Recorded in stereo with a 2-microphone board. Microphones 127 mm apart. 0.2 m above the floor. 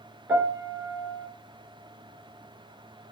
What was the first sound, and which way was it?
A piano, 20° right (ahead or behind).